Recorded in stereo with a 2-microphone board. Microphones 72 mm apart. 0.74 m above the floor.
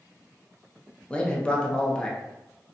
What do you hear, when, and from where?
1.1 s a man speaking: 15° left (ahead or behind), 0.6 m